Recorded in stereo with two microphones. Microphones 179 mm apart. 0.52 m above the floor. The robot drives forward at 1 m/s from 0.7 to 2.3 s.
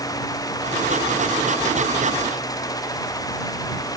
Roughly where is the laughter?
No laughter in this recording.